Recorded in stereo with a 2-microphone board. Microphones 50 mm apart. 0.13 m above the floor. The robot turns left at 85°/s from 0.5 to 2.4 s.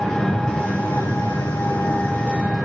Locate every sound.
0.0 s an engine running: 165° left, 6.5 m; by 2.6 s straight ahead, 6.5 m